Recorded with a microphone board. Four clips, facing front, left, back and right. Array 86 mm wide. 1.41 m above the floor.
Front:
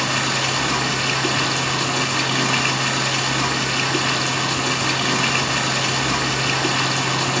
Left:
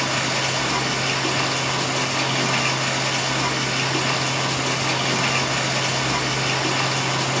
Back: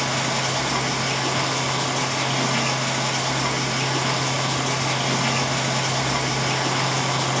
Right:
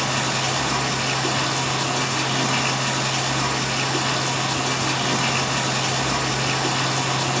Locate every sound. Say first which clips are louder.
0.0 s running water: even, front 2 dB; 5° left, 1.6 m